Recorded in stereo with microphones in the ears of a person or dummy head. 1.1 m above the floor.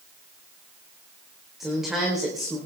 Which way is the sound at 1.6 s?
5° right (ahead or behind).